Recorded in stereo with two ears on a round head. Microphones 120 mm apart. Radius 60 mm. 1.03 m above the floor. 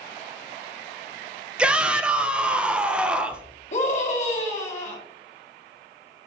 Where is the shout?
10° right (ahead or behind), 0.6 m.